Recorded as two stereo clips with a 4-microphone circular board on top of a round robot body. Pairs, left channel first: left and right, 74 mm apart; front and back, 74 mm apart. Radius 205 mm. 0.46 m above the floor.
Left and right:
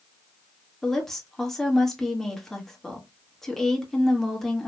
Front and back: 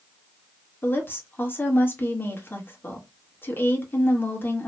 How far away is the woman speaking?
About 1.4 m.